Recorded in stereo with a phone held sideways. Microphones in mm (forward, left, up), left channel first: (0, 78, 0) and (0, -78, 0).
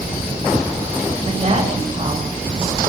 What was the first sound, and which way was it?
A woman speaking, 40° right (ahead or behind).